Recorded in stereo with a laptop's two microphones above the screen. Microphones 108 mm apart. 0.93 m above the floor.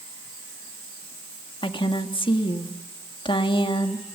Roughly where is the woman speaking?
Left.